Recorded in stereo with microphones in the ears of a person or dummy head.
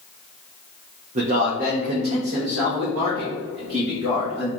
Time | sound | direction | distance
1.1 | a man speaking | 40° right (ahead or behind) | 0.6 m